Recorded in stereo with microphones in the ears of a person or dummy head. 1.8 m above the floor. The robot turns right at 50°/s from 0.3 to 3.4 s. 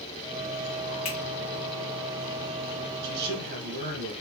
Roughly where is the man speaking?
Right.